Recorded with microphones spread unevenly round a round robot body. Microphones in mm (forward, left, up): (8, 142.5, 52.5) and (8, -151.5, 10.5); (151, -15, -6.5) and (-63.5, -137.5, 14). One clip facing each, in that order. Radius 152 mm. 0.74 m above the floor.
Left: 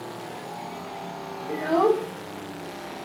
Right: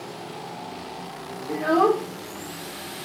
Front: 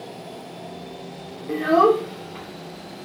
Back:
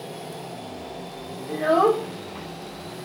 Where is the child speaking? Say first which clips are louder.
Right 1 dB, front 3 dB; 25° right, 1.2 m; by 3.1 s 45° right, 2.5 m.